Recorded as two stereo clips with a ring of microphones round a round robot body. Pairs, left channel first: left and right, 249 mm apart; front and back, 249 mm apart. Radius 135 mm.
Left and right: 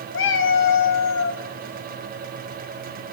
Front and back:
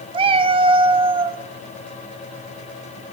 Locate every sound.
0.1 s a cat meowing: 115° left, 0.5 m